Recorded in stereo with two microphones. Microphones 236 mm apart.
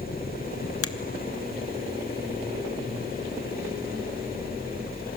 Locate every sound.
0.8 s a finger snap: 65° left (ahead or behind), 1.0 m